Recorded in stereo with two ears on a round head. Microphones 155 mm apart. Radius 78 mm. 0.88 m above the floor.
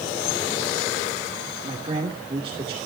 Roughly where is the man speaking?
Right.